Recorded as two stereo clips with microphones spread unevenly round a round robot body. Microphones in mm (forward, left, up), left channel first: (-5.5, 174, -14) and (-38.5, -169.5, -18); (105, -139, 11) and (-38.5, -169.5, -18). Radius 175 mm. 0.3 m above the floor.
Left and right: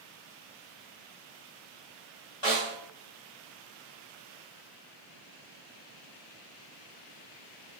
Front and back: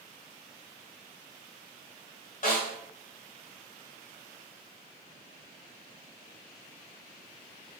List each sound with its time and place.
2.4 s a snare drum: 10° left, 1.7 m